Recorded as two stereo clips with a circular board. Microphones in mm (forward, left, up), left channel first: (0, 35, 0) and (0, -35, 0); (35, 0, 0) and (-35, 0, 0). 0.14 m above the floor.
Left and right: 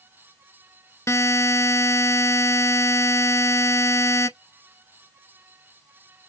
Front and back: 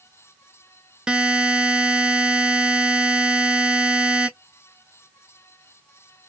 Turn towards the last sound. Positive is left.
turn(degrees=105)